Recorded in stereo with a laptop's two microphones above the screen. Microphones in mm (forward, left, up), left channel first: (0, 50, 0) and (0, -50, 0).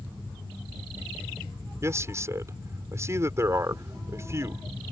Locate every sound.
1.8 s a man speaking: 30° right (ahead or behind)